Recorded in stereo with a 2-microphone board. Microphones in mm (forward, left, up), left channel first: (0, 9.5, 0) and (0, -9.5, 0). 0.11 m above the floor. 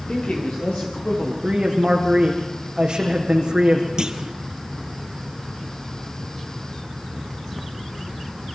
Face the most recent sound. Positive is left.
turn(degrees=-40)  # may be behind; listen again after turning